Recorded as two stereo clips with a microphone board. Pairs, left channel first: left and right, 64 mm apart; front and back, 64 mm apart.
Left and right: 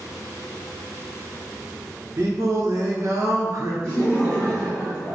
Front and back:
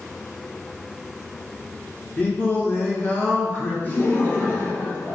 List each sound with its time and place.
2.2 s singing: 60° right, 1.2 m
3.8 s laughter: 10° left, 1.7 m